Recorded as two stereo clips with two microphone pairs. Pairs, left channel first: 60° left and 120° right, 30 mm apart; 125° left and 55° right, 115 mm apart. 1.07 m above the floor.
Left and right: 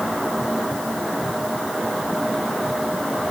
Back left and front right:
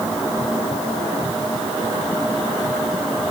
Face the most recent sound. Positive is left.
No sound to turn to.